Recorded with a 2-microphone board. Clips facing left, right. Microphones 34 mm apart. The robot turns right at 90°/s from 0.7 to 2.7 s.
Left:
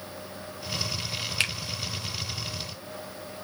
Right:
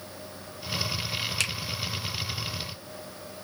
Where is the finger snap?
20° left (ahead or behind), 0.8 m; by 1.5 s 15° left (ahead or behind), 0.8 m.